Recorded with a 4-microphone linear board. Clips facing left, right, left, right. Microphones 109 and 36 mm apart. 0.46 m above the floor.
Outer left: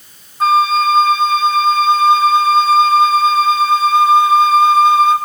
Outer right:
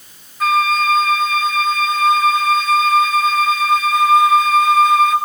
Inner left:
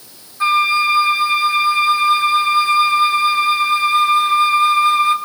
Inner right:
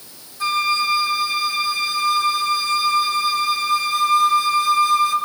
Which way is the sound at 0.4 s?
30° left (ahead or behind).